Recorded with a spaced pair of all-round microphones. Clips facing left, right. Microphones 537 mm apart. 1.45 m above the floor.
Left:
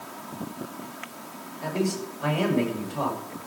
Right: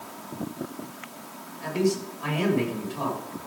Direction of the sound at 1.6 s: 65° left (ahead or behind).